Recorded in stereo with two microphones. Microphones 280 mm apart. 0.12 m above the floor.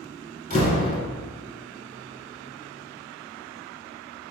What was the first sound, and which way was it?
A door slam, 25° left (ahead or behind).